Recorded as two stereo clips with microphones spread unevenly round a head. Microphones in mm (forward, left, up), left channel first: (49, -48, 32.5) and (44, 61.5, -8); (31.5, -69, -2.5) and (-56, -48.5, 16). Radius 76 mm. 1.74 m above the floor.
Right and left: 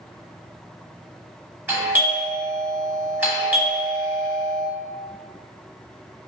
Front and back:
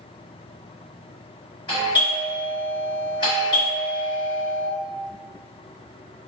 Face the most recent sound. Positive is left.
turn(degrees=30)